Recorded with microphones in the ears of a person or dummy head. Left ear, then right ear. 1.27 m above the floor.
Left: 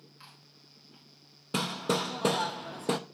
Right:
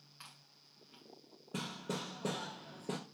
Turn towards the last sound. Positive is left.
turn(degrees=50)  # may be behind; listen again after turning